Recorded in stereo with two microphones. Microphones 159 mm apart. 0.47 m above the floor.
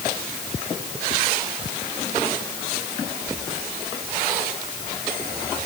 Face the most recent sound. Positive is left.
No sound to turn to.